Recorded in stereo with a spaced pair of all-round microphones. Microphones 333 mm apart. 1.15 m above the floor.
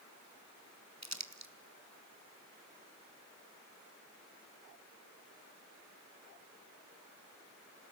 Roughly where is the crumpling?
Right.